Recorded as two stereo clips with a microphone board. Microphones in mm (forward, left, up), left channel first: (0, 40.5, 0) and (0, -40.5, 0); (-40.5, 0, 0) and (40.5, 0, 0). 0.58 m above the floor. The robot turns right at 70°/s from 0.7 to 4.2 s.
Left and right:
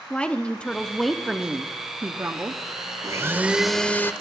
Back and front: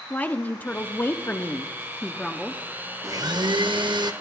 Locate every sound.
0.1 s a woman speaking: 145° left, 0.7 m; by 2.6 s 80° right, 0.7 m
3.0 s a blender: 45° right, 0.6 m; by 4.1 s 30° left, 0.6 m